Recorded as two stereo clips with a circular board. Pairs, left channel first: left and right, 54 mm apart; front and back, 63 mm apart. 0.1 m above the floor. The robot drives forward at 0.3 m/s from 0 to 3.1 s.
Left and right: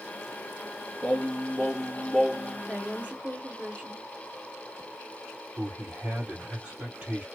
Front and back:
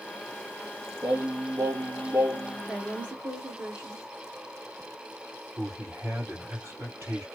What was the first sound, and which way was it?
Singing, 165° left.